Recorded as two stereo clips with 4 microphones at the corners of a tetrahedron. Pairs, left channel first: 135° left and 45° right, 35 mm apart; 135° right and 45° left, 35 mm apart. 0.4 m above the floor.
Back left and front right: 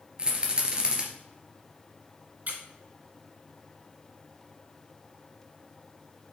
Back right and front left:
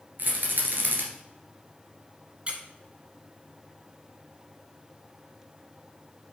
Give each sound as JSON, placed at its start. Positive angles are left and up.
{"t": 0.2, "sound": "a rattle", "azimuth_deg": 15, "distance_m": 2.0}
{"t": 2.5, "sound": "a squeak", "azimuth_deg": -10, "distance_m": 1.2}